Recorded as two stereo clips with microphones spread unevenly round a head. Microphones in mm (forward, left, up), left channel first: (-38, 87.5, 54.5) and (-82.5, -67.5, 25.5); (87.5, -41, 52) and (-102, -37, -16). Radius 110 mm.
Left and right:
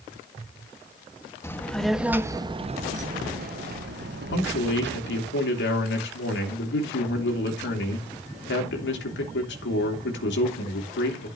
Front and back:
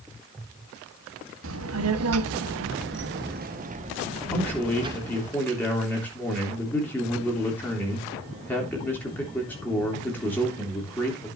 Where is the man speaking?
80° left, 3 m.